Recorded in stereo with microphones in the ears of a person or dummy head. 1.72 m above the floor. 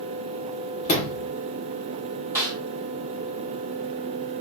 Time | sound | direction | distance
0.8 | a sliding door | 40° left (ahead or behind) | 2.0 m
2.4 | a snare drum | 15° right (ahead or behind) | 1.3 m